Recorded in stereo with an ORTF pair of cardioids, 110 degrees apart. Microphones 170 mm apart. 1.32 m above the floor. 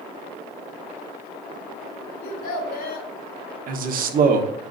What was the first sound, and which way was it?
A child speaking, 60° left.